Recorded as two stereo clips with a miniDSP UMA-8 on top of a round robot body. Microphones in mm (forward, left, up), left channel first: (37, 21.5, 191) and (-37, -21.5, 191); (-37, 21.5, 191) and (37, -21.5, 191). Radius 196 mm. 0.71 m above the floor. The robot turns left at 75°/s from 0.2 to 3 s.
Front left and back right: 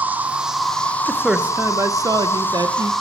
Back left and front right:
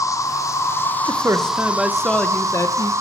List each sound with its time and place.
0.0 s an insect: 150° left, 1.3 m; by 3.0 s 60° right, 1.3 m
1.1 s a man speaking: 55° right, 0.8 m; by 2.9 s 170° left, 0.8 m